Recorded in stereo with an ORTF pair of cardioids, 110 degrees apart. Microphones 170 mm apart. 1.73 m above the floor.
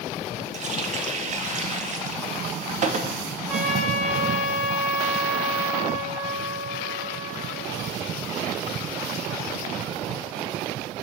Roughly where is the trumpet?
Ahead.